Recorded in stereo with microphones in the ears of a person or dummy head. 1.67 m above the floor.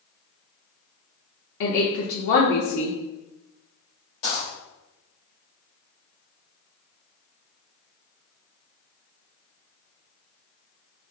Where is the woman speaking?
60° left (ahead or behind), 0.6 m.